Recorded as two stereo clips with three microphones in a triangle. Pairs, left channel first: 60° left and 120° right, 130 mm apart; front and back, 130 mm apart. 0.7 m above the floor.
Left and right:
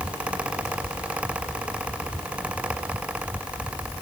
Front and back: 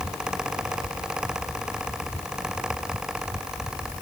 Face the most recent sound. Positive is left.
No sound to turn to.